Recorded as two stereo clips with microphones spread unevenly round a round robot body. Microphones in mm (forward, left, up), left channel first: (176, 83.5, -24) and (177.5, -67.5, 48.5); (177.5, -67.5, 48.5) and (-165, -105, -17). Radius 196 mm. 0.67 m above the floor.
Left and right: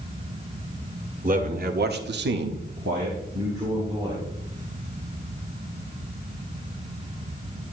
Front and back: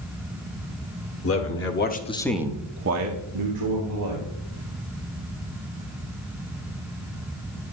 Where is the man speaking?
45° right, 2.0 m; by 4.3 s 170° left, 2.5 m.